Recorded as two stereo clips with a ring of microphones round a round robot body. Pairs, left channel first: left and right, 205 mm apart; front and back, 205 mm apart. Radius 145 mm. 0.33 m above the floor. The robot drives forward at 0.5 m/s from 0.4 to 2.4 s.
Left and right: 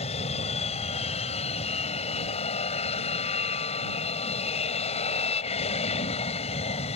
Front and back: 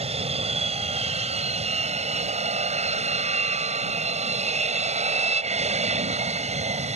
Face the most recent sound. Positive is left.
turn(degrees=140)